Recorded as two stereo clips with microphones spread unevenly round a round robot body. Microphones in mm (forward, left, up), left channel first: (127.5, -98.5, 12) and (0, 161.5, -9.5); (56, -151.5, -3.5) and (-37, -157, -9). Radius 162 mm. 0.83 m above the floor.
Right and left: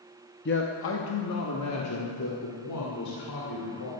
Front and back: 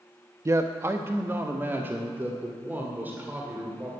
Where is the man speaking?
120° right, 0.7 m; by 3.9 s 105° right, 3 m.